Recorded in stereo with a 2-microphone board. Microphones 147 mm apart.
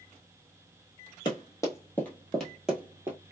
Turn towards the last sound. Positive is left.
turn(degrees=-15)  # may be behind; listen again after turning